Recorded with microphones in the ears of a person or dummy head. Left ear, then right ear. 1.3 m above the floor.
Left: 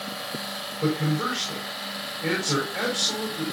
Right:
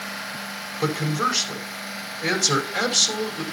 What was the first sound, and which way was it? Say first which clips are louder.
A man speaking: right 3 dB; 85° right.